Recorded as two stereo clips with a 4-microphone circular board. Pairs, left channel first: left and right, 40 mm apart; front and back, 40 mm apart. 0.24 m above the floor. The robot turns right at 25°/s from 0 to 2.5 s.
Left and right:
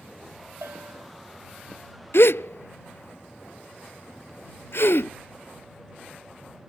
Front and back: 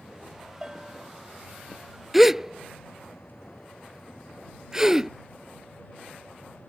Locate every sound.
0.6 s a bell: 105° right; by 1.1 s 95° right
2.1 s a gasp: 95° left; by 5.1 s 105° left